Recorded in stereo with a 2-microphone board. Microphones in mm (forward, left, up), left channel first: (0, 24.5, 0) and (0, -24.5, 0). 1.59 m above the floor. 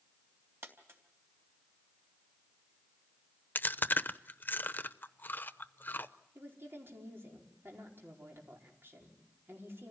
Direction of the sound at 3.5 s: 45° left (ahead or behind).